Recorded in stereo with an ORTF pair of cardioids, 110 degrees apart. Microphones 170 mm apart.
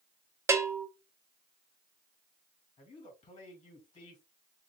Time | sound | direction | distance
0.5 | a bell | 15° right | 0.7 m
2.8 | a man speaking | 40° left | 2.5 m